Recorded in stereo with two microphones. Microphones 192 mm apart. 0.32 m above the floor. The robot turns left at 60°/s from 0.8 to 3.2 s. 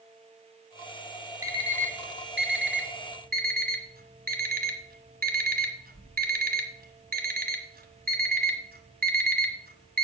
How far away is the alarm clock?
About 1.4 m.